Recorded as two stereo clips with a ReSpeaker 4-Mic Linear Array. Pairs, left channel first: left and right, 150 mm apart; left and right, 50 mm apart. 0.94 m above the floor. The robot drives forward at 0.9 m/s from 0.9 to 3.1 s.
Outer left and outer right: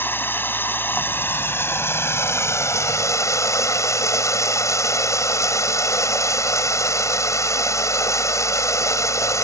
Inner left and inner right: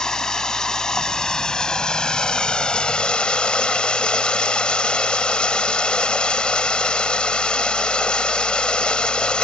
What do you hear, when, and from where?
0.0 s running water: 15° left (ahead or behind); by 9.5 s 20° left (ahead or behind)